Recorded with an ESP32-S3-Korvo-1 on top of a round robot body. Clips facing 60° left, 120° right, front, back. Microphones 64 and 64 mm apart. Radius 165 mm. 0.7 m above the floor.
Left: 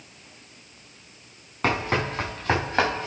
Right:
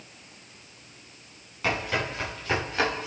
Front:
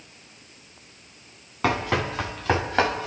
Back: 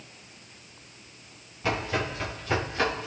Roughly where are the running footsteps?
Ahead.